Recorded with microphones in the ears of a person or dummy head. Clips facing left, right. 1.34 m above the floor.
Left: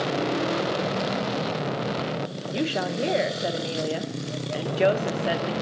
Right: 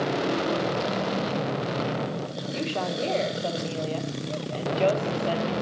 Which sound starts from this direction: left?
A woman speaking, at 2.5 s.